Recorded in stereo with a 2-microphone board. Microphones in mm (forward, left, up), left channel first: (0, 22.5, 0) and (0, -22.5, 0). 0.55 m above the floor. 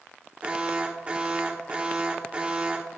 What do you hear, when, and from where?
0.4 s an alarm: 30° right (ahead or behind), 1.8 m